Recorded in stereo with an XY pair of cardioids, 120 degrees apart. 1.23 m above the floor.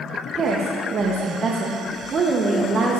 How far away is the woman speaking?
About 0.6 m.